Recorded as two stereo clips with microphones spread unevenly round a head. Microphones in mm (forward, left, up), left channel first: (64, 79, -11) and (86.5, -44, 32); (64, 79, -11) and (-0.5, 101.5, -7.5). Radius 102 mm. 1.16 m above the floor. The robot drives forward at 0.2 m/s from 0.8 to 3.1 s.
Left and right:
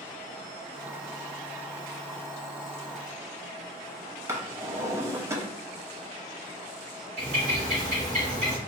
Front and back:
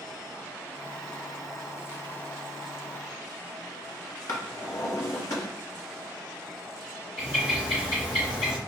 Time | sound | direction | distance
4.3 | a drawer | 50° right | 0.6 m
7.2 | a bird | 80° right | 1.0 m